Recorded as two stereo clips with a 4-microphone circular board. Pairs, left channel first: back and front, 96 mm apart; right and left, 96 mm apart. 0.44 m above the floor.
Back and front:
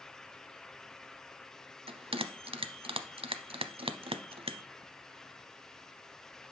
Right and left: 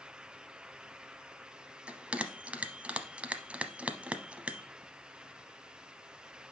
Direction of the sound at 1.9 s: 15° left.